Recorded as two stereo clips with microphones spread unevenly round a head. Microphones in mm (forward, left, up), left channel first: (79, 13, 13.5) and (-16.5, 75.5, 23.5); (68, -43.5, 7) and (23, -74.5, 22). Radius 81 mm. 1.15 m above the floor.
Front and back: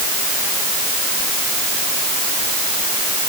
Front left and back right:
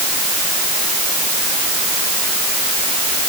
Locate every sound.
Only background noise.